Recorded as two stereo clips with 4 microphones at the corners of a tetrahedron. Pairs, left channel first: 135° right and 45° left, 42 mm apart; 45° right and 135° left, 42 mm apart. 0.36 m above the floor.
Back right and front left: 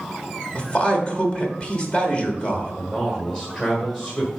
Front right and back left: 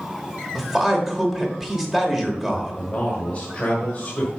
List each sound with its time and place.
0.6 s a man speaking: 155° right, 1.1 m
2.8 s a man speaking: 75° right, 1.6 m